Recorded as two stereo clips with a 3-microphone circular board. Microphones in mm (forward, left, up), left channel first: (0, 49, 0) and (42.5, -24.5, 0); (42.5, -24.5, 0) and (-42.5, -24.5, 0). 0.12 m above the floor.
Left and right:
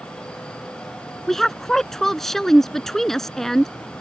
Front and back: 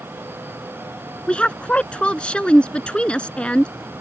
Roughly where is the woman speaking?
Ahead left.